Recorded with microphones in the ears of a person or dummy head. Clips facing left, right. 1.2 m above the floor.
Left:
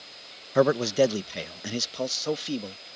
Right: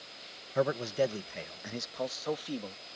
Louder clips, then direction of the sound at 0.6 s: Left 8 dB; 70° left (ahead or behind).